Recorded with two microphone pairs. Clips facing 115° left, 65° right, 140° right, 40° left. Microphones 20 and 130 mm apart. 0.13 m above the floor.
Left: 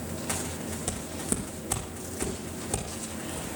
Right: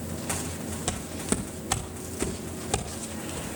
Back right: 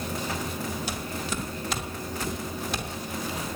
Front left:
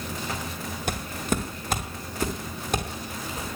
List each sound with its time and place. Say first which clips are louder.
0.9 s footsteps: right 4 dB, front left 3 dB; 5° left, 2 m; by 3.5 s 5° right, 6 m